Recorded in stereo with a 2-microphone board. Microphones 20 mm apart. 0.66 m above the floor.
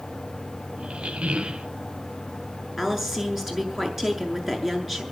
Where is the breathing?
No breathing in this recording.